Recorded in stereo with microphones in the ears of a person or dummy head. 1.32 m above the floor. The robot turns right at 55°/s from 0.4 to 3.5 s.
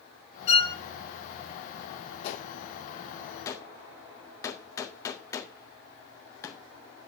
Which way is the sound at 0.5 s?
35° left (ahead or behind).